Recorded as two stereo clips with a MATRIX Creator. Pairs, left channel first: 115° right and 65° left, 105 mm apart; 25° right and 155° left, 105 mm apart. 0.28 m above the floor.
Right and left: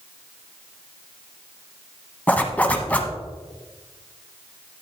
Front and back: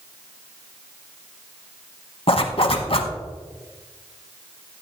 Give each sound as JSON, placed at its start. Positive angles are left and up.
{"t": 2.3, "sound": "a zipper", "azimuth_deg": -40, "distance_m": 1.0}